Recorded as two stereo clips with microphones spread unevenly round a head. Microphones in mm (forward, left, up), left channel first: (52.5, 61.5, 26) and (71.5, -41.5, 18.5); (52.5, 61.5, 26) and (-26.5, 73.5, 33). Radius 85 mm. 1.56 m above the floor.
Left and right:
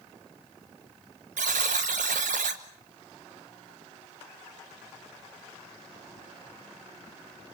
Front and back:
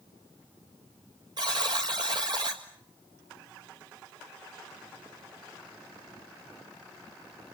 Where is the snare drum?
I don't hear a snare drum.